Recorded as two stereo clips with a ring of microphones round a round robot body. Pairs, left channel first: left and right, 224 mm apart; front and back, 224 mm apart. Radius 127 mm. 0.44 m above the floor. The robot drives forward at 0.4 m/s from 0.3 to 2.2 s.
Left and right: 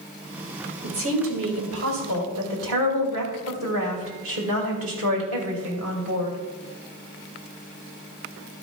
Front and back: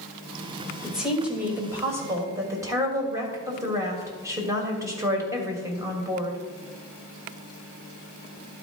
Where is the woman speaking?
90° right, 2.5 m; by 6.4 s 105° right, 2.5 m.